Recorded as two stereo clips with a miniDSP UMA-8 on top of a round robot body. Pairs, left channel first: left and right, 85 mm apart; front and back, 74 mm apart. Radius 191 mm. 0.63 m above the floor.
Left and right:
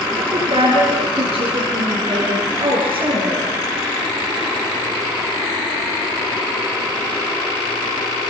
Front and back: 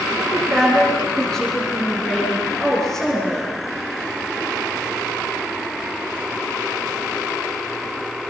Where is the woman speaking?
85° right, 8 m.